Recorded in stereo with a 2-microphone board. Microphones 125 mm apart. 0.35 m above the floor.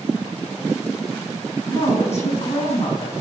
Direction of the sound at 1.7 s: 65° left (ahead or behind).